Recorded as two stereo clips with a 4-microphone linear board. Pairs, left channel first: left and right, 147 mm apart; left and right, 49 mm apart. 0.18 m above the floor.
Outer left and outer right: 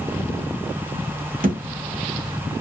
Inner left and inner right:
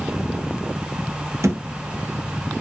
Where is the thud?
75° right (ahead or behind), 1.4 m.